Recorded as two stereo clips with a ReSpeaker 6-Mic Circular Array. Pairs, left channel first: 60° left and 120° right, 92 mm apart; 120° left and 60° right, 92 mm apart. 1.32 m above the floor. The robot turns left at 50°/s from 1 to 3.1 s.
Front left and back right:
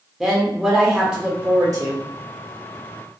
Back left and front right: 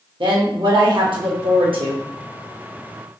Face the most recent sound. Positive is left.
turn(degrees=-140)